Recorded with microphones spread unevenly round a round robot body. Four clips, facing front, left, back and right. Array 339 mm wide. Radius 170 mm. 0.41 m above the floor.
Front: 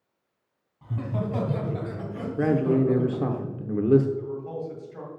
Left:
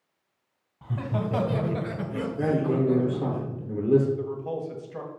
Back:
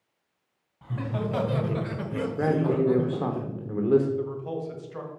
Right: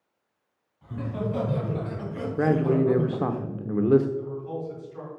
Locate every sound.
0.8 s laughter: 120° left, 3 m; by 3.4 s 110° right, 1.7 m
2.4 s a man speaking: 55° right, 0.8 m
4.2 s a man speaking: 125° left, 1.6 m